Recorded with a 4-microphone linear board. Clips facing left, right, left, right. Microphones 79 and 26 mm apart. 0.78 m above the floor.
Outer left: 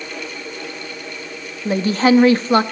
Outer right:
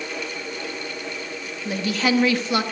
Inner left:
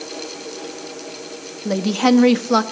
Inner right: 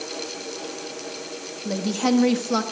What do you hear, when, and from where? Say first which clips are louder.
1.6 s a woman speaking: outer left 8 dB, inner left 6 dB; 35° left (ahead or behind), 1.2 m